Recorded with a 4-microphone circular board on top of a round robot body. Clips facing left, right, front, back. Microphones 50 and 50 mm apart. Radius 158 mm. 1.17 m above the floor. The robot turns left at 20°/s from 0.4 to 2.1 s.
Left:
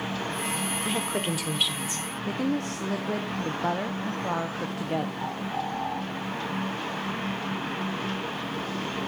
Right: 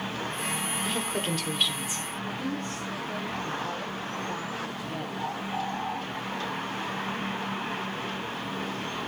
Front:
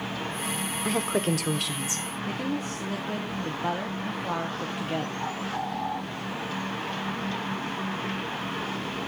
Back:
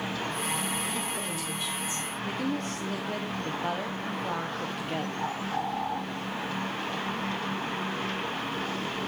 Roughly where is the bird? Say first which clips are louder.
Left 1 dB, even; left.